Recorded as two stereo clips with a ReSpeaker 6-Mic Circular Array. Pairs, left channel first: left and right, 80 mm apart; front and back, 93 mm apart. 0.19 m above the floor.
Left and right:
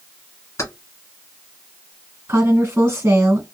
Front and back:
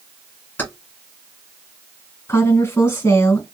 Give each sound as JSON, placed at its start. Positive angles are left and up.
{"t": 0.6, "sound": "keys jangling", "azimuth_deg": 60, "distance_m": 1.3}
{"t": 2.3, "sound": "a woman speaking", "azimuth_deg": -45, "distance_m": 1.7}